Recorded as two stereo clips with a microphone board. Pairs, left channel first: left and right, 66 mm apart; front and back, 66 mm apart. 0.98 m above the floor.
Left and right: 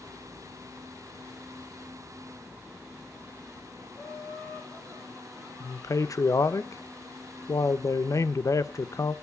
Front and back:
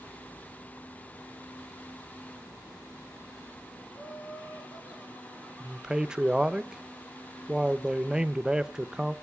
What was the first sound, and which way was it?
Laughter, 20° left.